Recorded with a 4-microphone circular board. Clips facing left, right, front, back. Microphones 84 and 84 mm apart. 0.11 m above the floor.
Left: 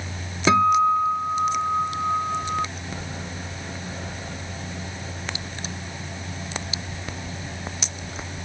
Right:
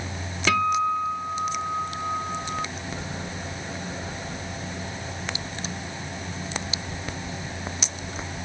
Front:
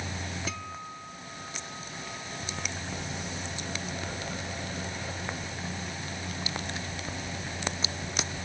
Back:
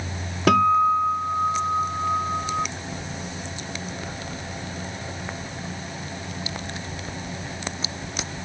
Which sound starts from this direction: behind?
A guitar, at 0.5 s.